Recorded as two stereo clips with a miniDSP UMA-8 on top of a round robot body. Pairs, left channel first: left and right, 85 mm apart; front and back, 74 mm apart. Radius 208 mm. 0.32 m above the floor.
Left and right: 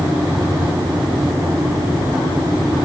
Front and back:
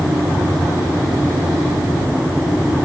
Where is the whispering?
I don't hear whispering.